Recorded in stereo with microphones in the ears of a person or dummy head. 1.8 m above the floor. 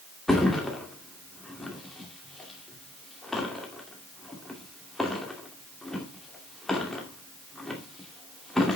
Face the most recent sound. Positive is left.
turn(degrees=5)  # may be behind; listen again after turning